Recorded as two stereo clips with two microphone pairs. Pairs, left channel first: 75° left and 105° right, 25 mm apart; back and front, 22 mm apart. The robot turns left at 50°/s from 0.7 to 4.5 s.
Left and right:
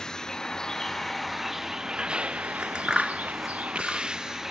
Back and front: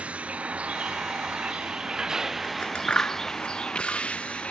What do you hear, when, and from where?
0.0 s a vehicle: 15° left; by 4.5 s 175° right
2.4 s scissors: 130° right; by 4.1 s 145° left